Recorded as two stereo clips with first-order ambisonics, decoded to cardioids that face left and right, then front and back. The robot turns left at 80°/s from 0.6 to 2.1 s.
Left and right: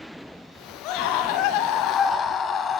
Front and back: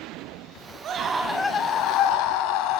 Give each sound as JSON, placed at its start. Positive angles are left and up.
{"t": 0.8, "sound": "a scream", "azimuth_deg": 125, "distance_m": 5.0}